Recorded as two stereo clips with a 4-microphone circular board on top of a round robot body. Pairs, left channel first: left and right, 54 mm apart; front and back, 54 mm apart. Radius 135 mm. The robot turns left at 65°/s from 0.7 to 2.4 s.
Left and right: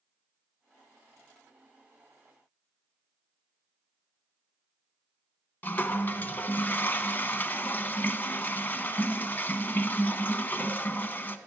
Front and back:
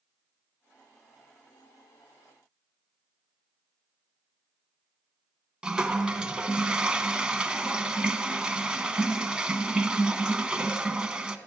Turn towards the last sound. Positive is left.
turn(degrees=115)